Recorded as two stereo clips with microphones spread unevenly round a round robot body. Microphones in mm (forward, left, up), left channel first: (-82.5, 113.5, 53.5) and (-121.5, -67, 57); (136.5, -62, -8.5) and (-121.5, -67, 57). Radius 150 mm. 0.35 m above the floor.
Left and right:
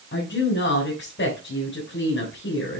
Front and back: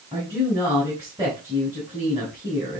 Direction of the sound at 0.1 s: 95° left.